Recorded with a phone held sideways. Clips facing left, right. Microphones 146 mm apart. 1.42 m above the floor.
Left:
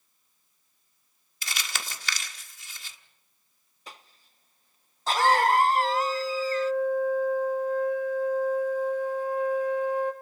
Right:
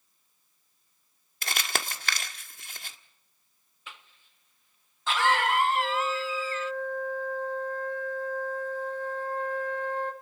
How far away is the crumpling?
About 1.5 m.